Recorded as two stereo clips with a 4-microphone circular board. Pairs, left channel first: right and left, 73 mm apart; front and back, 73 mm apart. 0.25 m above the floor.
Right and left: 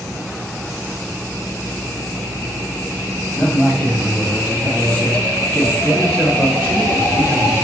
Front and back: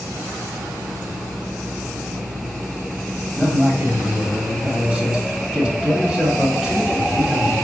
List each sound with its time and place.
3.4 s a man speaking: 115° right, 1.3 m